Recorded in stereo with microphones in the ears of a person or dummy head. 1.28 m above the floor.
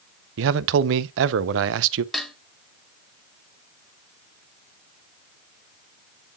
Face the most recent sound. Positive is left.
turn(degrees=-5)  # may be behind; listen again after turning